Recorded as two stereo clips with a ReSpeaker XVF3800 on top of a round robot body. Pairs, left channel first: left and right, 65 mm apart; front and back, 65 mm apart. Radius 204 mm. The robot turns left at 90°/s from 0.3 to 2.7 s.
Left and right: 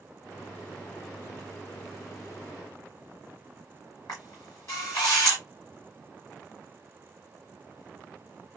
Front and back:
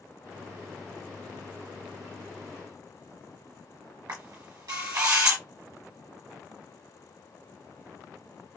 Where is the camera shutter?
145° left, 1.2 m.